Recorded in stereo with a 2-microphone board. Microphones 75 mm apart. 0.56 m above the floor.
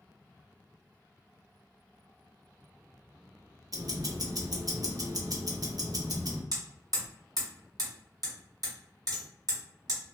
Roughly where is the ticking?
Right.